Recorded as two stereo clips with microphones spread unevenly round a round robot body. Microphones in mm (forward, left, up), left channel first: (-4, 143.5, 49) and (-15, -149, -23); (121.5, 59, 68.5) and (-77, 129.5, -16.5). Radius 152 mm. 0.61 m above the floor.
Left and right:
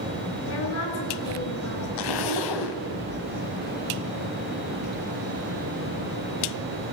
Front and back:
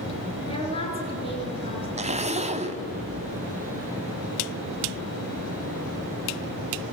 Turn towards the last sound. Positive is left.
turn(degrees=100)